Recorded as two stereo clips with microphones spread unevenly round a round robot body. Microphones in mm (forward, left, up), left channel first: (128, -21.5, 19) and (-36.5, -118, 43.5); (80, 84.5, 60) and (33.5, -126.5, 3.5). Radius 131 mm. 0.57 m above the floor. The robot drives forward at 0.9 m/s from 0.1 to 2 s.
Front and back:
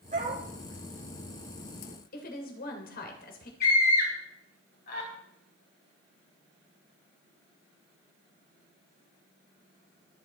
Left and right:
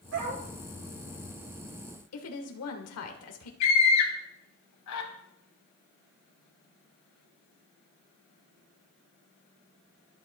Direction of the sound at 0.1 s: 105° right.